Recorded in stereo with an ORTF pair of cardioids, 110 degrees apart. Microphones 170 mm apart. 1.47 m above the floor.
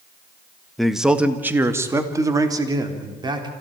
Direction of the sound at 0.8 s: Straight ahead.